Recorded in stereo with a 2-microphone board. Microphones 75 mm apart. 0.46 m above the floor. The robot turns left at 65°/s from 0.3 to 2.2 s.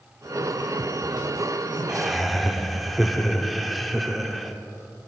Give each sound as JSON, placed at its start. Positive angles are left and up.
{"t": 1.9, "sound": "laughter", "side_deg": -10, "distance_m": 0.7}